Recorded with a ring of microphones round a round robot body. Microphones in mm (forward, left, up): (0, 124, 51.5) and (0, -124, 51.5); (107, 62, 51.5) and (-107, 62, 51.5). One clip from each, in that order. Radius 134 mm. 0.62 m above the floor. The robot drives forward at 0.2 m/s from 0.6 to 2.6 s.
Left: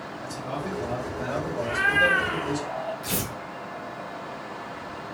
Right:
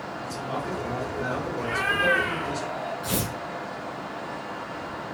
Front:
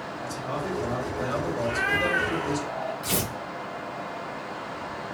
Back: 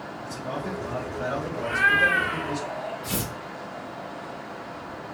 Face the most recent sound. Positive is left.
turn(degrees=20)